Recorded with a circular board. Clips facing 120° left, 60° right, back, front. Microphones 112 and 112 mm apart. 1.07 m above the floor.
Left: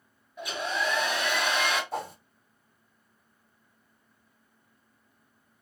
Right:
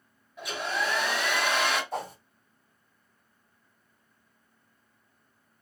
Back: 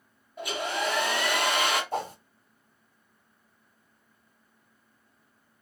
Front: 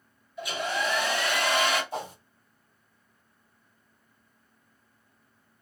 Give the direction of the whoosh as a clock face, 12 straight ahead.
5 o'clock.